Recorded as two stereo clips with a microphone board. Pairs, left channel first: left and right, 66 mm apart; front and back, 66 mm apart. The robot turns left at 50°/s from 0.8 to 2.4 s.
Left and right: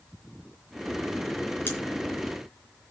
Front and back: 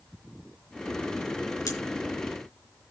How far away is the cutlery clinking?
About 3.5 m.